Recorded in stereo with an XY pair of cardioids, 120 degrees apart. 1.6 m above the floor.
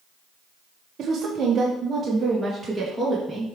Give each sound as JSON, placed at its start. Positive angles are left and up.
{"t": 1.0, "sound": "a woman speaking", "azimuth_deg": -40, "distance_m": 1.7}